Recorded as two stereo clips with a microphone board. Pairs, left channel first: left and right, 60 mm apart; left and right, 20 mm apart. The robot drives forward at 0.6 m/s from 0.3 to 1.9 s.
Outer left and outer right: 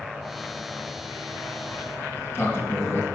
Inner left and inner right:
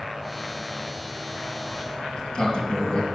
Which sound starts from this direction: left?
A sliding door, at 1.7 s.